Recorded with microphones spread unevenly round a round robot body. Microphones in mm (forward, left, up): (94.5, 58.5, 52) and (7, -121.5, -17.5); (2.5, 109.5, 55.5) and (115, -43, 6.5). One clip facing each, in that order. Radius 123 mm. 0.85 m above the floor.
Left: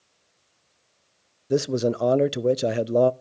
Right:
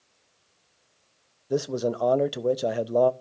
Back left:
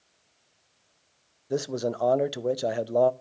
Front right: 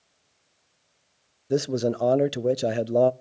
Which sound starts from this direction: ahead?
A man speaking, at 1.5 s.